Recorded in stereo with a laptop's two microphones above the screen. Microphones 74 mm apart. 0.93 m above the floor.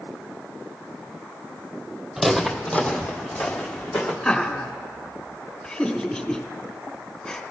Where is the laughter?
20° left (ahead or behind), 3 m.